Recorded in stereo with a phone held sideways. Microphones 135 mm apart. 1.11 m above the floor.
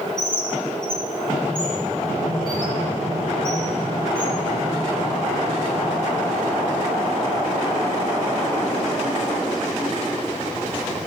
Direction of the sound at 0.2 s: 35° left (ahead or behind).